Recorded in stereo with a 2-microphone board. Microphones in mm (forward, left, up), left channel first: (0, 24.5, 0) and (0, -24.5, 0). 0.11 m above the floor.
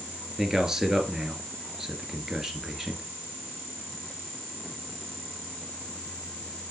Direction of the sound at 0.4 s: 10° right (ahead or behind).